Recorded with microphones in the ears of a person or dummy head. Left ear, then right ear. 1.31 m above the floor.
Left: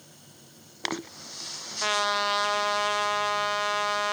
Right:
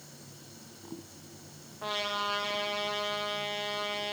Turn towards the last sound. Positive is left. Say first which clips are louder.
# left 7 dB
turn(degrees=65)  # may be behind; listen again after turning